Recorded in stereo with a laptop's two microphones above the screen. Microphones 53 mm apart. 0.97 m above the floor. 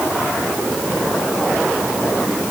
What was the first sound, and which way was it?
Only background noise.